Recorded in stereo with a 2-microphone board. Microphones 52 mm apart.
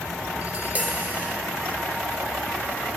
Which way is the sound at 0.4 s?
25° right (ahead or behind).